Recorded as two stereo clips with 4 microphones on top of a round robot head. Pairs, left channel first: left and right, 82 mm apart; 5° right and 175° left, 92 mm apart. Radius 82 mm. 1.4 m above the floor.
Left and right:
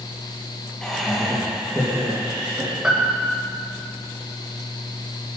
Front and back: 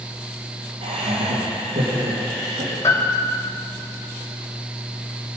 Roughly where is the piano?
Ahead.